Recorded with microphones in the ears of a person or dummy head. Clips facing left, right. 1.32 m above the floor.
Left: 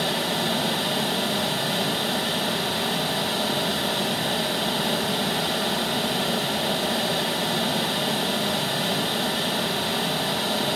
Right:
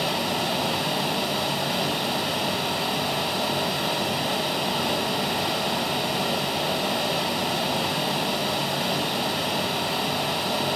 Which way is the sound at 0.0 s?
5° left (ahead or behind).